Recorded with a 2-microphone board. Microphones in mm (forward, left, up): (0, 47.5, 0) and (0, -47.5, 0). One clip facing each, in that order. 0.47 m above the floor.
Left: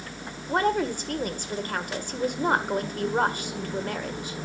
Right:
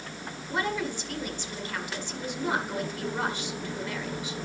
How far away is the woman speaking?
About 1.7 m.